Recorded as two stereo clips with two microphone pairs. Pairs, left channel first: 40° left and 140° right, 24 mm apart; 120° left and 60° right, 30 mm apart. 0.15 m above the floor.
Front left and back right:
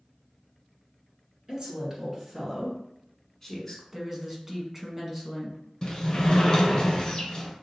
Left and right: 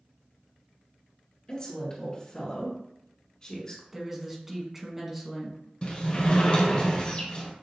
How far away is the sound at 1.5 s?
About 2.0 m.